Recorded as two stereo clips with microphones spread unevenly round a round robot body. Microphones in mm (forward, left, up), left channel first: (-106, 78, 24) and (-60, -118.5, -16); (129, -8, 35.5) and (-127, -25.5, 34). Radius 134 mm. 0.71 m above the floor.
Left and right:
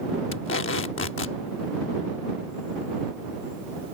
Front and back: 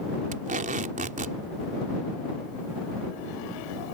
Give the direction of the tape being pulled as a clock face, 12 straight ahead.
8 o'clock.